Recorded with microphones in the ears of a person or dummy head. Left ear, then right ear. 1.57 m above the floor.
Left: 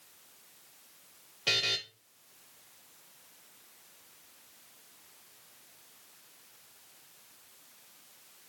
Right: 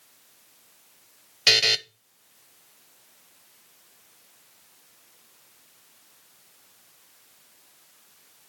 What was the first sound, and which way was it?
A buzzer, 65° right (ahead or behind).